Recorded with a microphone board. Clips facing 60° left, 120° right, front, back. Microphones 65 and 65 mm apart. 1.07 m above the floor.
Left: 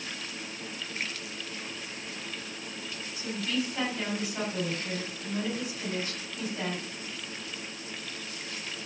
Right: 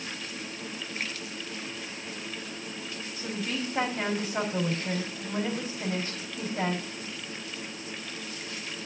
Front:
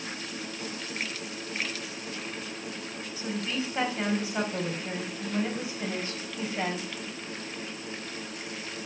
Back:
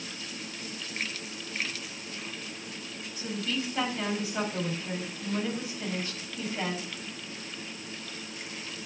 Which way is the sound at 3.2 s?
70° right.